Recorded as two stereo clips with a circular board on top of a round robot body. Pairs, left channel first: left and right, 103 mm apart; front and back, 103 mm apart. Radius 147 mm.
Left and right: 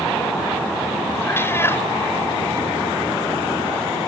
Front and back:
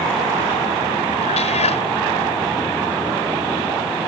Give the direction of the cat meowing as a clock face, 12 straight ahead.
11 o'clock.